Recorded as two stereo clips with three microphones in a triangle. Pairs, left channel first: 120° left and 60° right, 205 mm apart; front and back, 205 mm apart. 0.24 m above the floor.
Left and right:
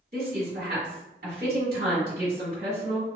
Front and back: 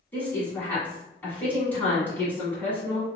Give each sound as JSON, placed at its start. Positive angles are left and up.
{"t": 0.1, "sound": "a woman speaking", "azimuth_deg": -80, "distance_m": 1.8}